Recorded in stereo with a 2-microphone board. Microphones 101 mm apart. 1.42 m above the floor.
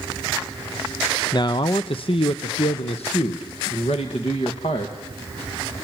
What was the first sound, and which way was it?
A man speaking, 45° left (ahead or behind).